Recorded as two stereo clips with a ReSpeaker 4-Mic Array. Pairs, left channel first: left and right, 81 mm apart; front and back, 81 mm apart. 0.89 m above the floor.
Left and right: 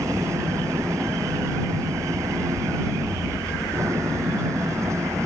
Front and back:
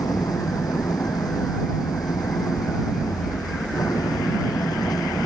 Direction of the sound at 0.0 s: 40° right.